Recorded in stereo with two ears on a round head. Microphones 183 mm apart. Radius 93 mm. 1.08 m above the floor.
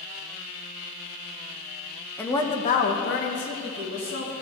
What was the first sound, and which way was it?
A woman speaking, 10° left (ahead or behind).